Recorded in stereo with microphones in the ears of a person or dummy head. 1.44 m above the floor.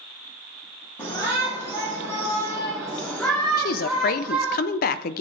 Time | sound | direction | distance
1.0 | a shout | 25° left (ahead or behind) | 2.5 m
3.6 | a woman speaking | 55° left (ahead or behind) | 0.7 m